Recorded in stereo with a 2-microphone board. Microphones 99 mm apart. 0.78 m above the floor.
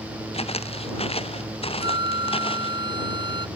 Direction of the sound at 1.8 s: 50° right (ahead or behind).